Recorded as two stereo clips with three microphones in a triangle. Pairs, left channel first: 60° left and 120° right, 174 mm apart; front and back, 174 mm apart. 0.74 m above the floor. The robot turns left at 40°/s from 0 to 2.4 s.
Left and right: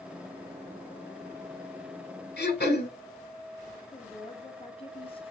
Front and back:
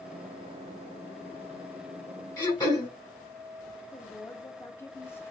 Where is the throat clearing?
70° left, 1.3 m; by 2.9 s 65° left, 1.3 m.